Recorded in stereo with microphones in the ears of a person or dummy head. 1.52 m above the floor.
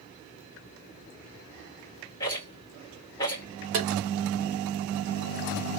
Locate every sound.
2.2 s a rattle: 20° left (ahead or behind), 2.0 m
3.7 s tapping: 40° right (ahead or behind), 1.0 m